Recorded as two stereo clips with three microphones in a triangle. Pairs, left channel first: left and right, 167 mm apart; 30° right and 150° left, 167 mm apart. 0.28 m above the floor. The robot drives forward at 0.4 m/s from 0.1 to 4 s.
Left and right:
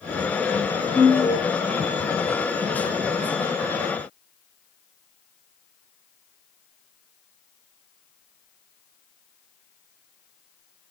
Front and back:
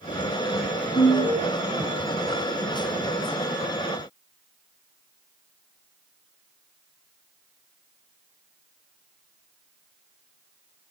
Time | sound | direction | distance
0.9 | an alarm | 15° left | 4.5 m